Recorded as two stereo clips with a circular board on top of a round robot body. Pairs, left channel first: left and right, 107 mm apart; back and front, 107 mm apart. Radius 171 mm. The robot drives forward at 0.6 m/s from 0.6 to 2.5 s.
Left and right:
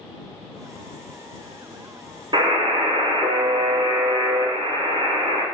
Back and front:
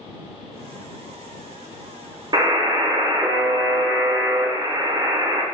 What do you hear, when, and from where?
2.3 s a buzzer: 50° right, 0.9 m; by 5.4 s 55° right, 0.8 m